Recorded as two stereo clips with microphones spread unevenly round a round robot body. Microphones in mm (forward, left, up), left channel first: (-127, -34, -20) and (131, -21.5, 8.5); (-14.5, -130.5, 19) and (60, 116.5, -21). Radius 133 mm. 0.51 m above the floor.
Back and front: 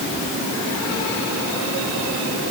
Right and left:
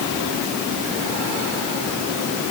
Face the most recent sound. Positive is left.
No sound to turn to.